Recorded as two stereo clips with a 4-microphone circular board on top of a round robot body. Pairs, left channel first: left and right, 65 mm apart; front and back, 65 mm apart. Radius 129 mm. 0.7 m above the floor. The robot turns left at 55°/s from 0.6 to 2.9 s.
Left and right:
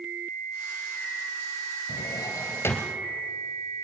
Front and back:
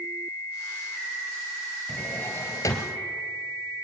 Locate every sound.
1.9 s a drawer: 75° left, 2 m; by 3.0 s 20° left, 2 m